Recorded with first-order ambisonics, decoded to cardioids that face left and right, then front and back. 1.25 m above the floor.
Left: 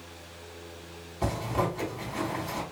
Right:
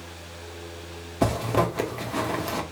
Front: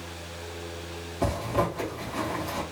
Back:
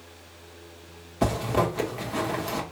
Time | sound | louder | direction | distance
1.2 | a zipper | right 6 dB, back 2 dB | 120° right | 1.3 m